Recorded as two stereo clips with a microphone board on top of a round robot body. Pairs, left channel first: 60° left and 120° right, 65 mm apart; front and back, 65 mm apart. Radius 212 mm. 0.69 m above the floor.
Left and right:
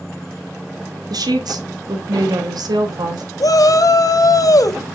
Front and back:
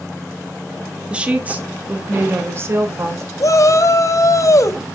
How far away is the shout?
About 1.4 m.